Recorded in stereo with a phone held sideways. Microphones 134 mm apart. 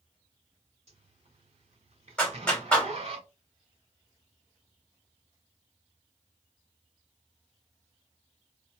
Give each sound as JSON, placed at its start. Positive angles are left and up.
{"t": 0.9, "sound": "a zipper", "side_deg": -50, "distance_m": 1.9}
{"t": 2.2, "sound": "a clap", "side_deg": 10, "distance_m": 2.0}